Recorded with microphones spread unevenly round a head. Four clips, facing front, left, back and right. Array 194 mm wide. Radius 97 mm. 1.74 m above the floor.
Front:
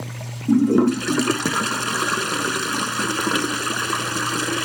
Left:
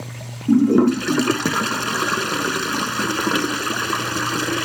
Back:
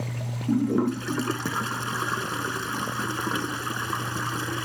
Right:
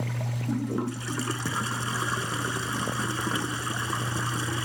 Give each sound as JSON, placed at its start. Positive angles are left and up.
{"t": 0.5, "sound": "a toilet flushing", "azimuth_deg": 55}